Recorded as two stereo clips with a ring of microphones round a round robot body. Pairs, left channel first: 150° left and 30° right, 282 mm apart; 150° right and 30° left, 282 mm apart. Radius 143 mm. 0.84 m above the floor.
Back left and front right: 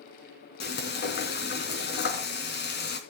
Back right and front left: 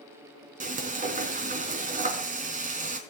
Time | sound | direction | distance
0.6 | frying | 95° left | 4 m